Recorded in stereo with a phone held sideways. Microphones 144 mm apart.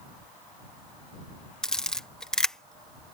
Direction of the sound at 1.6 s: 5° left (ahead or behind).